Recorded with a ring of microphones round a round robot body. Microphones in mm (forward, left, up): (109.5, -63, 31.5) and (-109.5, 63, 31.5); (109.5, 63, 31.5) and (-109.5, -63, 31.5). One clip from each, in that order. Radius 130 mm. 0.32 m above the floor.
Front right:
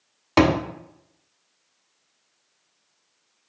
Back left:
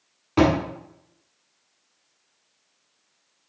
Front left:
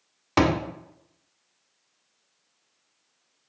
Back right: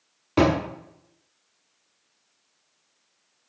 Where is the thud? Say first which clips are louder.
Front right 1 dB, back right 1 dB; 10° right, 1.1 m.